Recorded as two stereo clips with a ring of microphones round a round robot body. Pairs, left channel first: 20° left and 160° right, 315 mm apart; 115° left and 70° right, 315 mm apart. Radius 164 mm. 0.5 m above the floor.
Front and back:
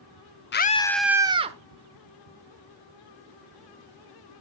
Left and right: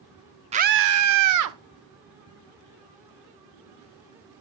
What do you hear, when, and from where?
0.5 s a scream: 10° right, 0.8 m; by 1.6 s 90° right, 1.5 m